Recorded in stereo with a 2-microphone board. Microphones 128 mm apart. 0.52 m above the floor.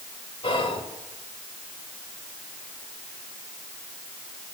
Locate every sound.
0.4 s whispering: 45° left (ahead or behind), 1.5 m